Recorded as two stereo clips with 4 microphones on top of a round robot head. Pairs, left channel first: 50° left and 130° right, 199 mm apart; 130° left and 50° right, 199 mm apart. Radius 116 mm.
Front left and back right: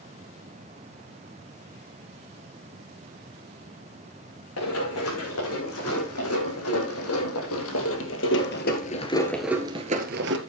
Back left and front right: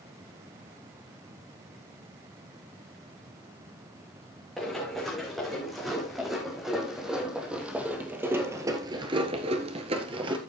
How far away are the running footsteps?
About 7 m.